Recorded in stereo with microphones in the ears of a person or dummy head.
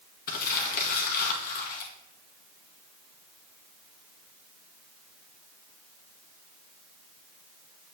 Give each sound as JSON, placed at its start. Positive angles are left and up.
{"t": 0.3, "sound": "crumpling", "side_deg": 50, "distance_m": 1.8}